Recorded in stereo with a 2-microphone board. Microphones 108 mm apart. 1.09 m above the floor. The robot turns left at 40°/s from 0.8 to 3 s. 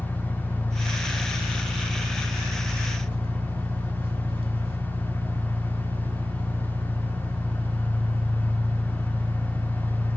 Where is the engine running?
20° right, 1.0 m; by 10.2 s 110° right, 1.0 m.